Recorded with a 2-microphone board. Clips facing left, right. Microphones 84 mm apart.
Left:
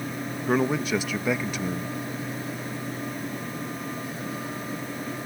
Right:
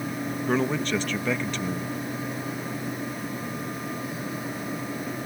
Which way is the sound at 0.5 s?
10° left (ahead or behind).